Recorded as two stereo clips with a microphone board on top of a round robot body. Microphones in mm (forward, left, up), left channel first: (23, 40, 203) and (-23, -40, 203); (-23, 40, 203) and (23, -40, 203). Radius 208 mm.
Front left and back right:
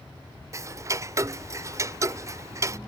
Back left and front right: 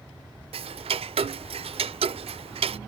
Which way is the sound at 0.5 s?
60° right.